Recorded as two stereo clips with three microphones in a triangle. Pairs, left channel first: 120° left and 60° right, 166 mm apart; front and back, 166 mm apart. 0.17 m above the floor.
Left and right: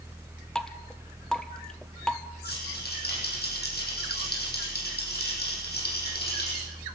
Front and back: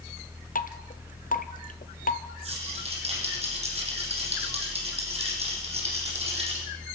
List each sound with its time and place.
0.6 s dripping: 35° left, 1.2 m
2.5 s a rattle: 130° left, 7.5 m